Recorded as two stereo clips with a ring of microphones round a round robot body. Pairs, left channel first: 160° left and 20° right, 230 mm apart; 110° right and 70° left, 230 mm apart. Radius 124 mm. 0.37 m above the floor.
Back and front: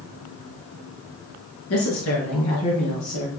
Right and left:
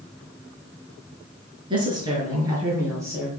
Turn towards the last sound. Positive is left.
turn(degrees=145)